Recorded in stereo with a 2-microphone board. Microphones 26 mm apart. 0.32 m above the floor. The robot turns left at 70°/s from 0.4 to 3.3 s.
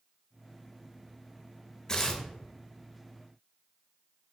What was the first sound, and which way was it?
Tearing paper, 25° left (ahead or behind).